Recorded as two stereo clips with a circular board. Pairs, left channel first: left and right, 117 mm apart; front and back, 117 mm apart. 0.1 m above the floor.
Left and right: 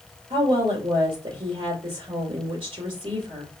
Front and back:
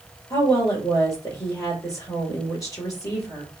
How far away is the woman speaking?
About 2.5 m.